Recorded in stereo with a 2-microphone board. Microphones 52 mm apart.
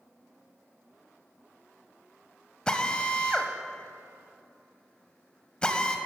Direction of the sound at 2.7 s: 15° left (ahead or behind).